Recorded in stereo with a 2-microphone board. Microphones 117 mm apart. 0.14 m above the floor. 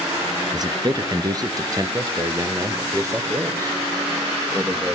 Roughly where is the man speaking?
Right.